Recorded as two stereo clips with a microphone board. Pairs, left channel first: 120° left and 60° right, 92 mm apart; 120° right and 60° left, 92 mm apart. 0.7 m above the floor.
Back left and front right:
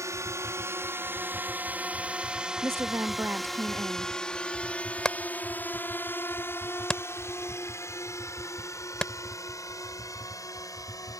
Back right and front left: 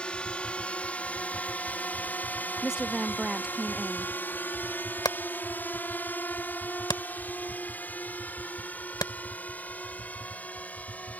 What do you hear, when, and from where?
0.0 s a drone: 50° right; by 11.2 s 170° left
2.6 s a woman speaking: 20° right
5.0 s hammering: 155° right